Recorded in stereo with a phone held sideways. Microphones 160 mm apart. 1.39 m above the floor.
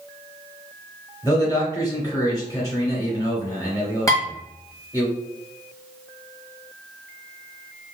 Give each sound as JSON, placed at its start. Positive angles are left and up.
{"t": 1.2, "sound": "a man speaking", "side_deg": 20, "distance_m": 1.1}
{"t": 4.1, "sound": "dishes clattering", "side_deg": 20, "distance_m": 1.2}